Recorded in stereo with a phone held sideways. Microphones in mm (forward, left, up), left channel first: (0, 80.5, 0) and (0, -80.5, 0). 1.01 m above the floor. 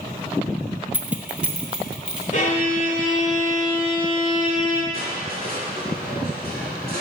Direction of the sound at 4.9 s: 80° left.